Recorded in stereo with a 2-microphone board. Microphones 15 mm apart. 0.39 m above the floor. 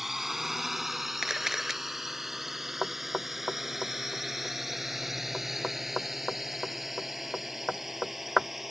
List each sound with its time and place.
0.0 s a drone: 20° right (ahead or behind); by 8.7 s 15° right (ahead or behind)
1.2 s a camera shutter: 20° right (ahead or behind)
2.8 s knocking: 10° right (ahead or behind)